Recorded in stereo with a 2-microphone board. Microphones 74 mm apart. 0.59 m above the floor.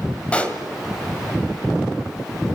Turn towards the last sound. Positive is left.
turn(degrees=15)  # may be behind; listen again after turning